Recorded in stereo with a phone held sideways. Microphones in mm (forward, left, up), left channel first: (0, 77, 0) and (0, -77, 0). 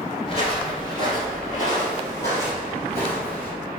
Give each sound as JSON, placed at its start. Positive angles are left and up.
{"t": 0.3, "sound": "footsteps", "side_deg": 35, "distance_m": 1.5}